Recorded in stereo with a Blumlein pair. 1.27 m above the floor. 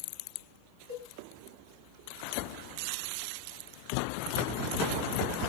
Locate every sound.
0.9 s a cowbell: 70° right, 3 m